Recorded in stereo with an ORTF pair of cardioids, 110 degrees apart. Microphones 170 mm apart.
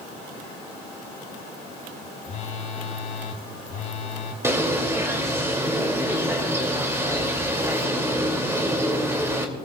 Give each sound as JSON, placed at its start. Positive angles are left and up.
{"t": 2.2, "sound": "a phone buzzing", "azimuth_deg": 45, "distance_m": 2.5}
{"t": 4.4, "sound": "a bird", "azimuth_deg": -15, "distance_m": 2.5}